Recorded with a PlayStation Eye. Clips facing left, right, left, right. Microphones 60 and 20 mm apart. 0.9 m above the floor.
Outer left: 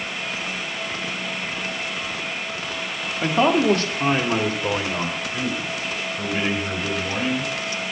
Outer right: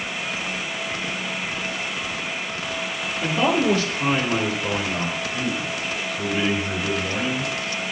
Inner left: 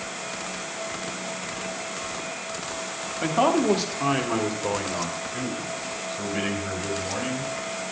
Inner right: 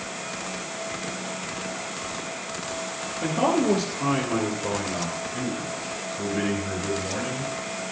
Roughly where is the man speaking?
Left.